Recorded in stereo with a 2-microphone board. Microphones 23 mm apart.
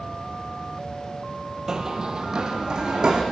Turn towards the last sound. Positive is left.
turn(degrees=-35)  # may be behind; listen again after turning